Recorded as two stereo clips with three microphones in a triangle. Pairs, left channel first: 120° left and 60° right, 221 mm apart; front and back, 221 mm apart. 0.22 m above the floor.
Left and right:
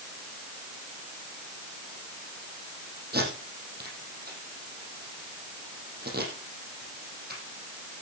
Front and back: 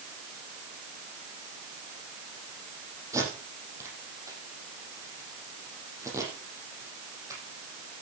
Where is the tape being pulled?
105° right, 5.5 m.